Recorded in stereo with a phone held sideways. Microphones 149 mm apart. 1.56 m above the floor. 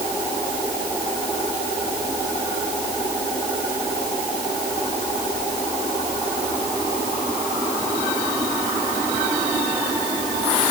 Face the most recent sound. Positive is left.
No sound to turn to.